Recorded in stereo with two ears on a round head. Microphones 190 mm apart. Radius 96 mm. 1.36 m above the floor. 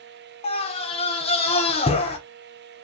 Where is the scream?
25° left (ahead or behind), 0.9 m.